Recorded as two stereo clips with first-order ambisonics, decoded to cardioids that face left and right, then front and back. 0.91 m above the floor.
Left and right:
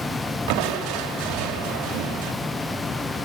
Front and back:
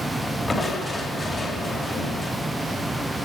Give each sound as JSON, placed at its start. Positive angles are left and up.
{"t": 0.5, "sound": "crushing", "azimuth_deg": -75, "distance_m": 2.5}